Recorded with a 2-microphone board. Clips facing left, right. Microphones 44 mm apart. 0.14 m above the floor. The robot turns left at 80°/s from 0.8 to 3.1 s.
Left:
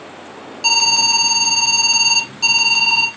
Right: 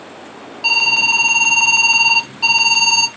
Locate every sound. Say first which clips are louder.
0.6 s an alarm: right 3 dB; 10° right (ahead or behind), 0.8 m; by 3.1 s 10° left (ahead or behind), 0.8 m